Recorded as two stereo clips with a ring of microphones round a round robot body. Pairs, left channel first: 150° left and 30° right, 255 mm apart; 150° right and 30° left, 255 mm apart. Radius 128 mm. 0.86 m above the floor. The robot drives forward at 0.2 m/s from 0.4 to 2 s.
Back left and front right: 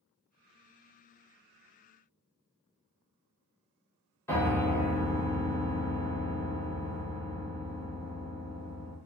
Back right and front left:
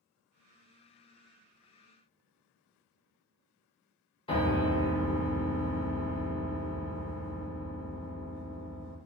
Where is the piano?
150° right, 0.7 m.